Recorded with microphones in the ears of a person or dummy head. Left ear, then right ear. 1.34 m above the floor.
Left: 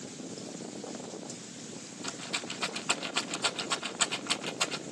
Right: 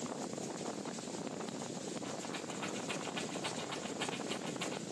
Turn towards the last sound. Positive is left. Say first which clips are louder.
# left 6 dB
turn(degrees=55)  # may be behind; listen again after turning